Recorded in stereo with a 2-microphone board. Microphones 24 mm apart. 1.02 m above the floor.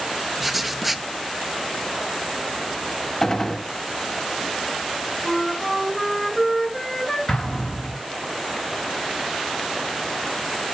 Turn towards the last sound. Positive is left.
turn(degrees=25)  # may be behind; listen again after turning